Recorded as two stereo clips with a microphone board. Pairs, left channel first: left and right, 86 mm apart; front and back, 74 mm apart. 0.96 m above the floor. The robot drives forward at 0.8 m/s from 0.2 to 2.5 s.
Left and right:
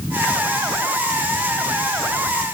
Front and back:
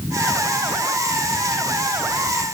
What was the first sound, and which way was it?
Only background noise.